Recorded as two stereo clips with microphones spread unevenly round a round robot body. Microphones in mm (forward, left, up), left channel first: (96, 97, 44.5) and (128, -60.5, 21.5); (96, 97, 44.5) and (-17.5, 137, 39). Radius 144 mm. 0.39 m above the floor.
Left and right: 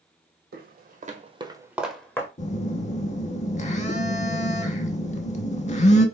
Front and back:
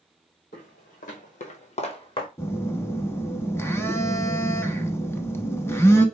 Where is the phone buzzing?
55° left, 0.8 m.